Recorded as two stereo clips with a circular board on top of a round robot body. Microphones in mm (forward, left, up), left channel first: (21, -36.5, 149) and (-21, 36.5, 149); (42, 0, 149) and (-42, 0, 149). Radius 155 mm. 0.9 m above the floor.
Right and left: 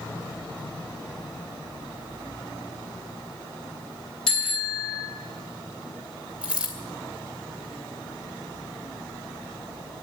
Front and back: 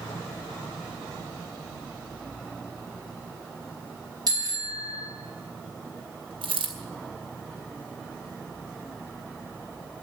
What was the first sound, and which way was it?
A bicycle bell, 140° right.